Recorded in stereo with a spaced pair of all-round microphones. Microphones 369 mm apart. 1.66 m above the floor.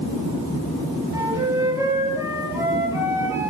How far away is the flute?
About 3 m.